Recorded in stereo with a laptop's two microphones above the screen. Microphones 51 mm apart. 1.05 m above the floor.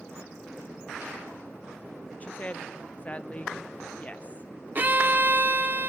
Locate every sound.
2.2 s a woman speaking: 25° left (ahead or behind), 0.5 m
4.8 s a violin: 35° right (ahead or behind), 0.7 m